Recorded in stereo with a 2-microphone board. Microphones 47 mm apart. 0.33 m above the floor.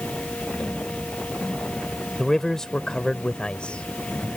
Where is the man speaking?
5° left (ahead or behind); by 4.3 s 25° left (ahead or behind).